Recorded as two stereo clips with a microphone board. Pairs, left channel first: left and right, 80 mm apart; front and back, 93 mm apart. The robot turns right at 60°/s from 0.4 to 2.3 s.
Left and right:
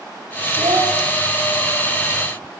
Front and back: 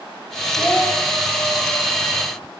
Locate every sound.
0.6 s a child speaking: 85° right, 7.5 m; by 0.9 s 65° right, 7.5 m